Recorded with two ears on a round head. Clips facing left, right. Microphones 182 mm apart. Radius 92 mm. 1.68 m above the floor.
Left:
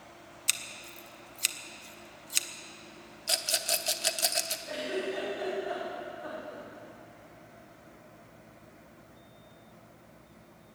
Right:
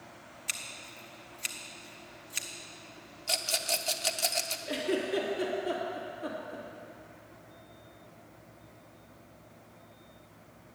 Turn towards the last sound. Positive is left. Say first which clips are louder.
# right 4 dB
turn(degrees=-40)  # may be behind; listen again after turning